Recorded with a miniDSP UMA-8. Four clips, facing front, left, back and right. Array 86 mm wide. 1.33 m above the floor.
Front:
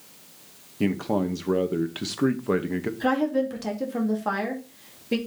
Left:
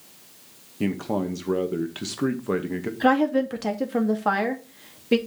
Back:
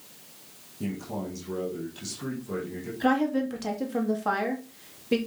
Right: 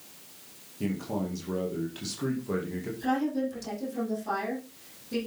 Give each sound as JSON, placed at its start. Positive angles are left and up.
{"t": 0.8, "sound": "a man speaking", "azimuth_deg": 35, "distance_m": 1.7}
{"t": 3.0, "sound": "a woman speaking", "azimuth_deg": 90, "distance_m": 2.5}